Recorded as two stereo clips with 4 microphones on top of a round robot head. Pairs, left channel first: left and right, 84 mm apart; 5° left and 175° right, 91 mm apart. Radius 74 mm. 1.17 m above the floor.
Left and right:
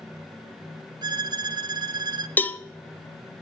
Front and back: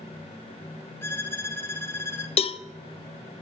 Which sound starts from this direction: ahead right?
A violin, at 1.0 s.